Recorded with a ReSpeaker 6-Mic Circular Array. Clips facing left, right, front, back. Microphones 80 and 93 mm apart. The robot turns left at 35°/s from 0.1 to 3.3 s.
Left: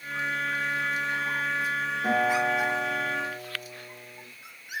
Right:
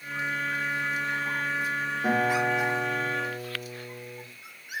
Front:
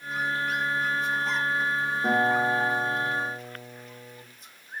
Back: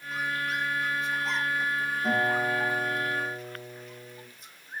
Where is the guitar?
25° right, 1.1 m; by 4.2 s 70° right, 1.1 m.